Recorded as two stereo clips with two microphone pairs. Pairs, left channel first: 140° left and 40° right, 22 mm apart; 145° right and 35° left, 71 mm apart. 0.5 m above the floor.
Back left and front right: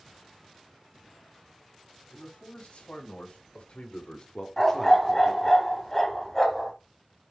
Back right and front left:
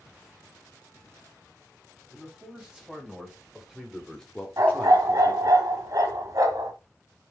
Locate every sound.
2.1 s a man speaking: 110° left, 3.5 m; by 5.6 s 95° right, 1.4 m
4.6 s a dog barking: 65° left, 1.5 m